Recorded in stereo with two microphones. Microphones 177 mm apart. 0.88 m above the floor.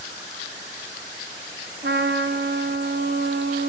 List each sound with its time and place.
1.8 s a trumpet: 70° right (ahead or behind), 0.8 m